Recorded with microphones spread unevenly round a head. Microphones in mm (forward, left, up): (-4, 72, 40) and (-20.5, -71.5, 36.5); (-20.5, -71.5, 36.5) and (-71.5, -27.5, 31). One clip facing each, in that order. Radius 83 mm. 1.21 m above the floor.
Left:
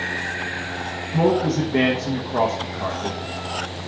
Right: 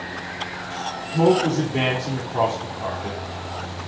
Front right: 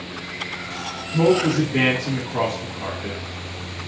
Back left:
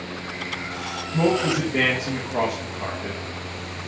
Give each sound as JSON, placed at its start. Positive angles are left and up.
{"t": 1.1, "sound": "a man speaking", "azimuth_deg": 65, "distance_m": 1.1}